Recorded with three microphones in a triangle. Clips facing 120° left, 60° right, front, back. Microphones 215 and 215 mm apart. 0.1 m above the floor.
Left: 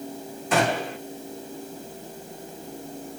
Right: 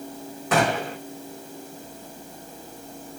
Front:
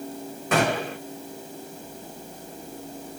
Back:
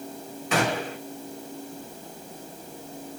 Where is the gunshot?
35° right, 5 m.